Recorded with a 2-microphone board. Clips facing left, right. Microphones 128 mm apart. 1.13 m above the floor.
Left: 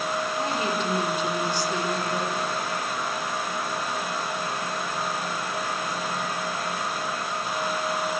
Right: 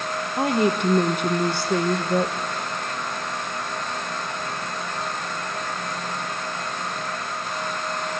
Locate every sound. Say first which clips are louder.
0.4 s a woman speaking: right 10 dB; 60° right (ahead or behind), 0.8 m